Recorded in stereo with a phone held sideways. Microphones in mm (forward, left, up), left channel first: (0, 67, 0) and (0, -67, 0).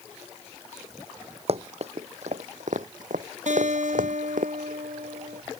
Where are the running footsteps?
50° right (ahead or behind); by 4.5 s 75° right (ahead or behind).